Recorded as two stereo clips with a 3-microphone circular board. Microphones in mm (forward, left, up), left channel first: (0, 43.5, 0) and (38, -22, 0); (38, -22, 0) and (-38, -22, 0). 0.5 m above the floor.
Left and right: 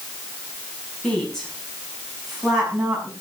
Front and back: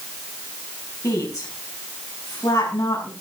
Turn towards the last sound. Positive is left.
turn(degrees=25)